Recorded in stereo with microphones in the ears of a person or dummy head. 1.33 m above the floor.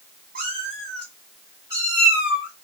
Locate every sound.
0.3 s a cat meowing: 40° right (ahead or behind), 0.8 m; by 2.5 s 10° right (ahead or behind), 1.9 m